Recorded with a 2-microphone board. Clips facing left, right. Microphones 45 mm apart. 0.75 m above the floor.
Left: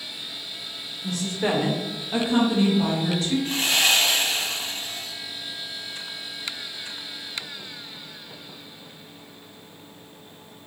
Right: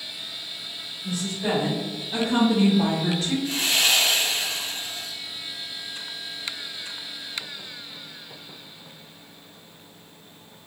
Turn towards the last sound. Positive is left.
turn(degrees=40)  # may be behind; listen again after turning